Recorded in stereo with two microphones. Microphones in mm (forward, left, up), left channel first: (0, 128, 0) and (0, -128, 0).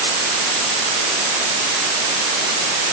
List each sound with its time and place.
Only background noise.